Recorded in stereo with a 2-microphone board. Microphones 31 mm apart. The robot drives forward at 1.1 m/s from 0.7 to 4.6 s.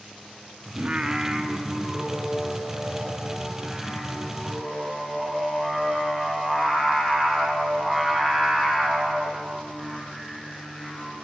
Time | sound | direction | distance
0.8 | singing | 35° right (ahead or behind) | 0.9 m